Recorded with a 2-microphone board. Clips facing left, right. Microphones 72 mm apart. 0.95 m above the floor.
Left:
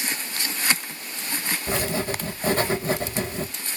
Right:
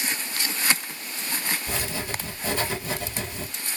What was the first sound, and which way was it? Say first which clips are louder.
Writing: left 5 dB; 40° left (ahead or behind).